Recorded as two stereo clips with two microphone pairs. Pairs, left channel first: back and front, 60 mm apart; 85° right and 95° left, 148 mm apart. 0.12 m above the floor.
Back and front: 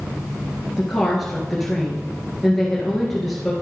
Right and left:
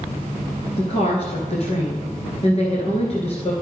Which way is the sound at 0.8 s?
95° right.